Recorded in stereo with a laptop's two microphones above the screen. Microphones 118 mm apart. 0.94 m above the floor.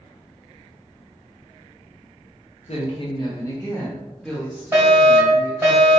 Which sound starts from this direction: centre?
A fire alarm, at 4.7 s.